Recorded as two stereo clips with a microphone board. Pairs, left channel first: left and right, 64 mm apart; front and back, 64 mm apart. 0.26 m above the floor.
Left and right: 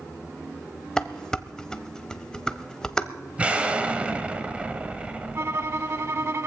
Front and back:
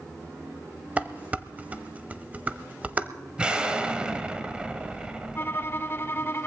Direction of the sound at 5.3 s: 50° right.